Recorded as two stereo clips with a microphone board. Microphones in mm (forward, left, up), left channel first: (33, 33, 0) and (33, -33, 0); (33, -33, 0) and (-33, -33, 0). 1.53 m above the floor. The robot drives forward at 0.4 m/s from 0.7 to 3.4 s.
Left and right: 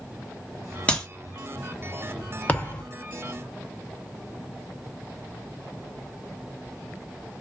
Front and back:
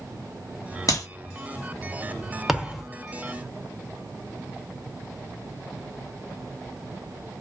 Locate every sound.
0.9 s a clap: 20° left, 1.3 m
2.5 s a thud: 95° left, 0.9 m; by 2.9 s 115° left, 1.0 m